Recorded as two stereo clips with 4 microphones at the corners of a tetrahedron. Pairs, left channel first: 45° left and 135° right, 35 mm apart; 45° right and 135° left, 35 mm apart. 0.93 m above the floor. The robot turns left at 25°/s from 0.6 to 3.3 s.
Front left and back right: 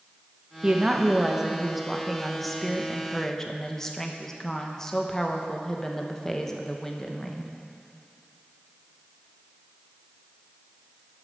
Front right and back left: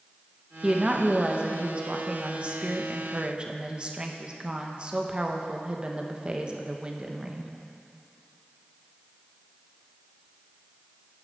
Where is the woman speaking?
175° left, 0.9 m; by 7.5 s 110° left, 0.9 m.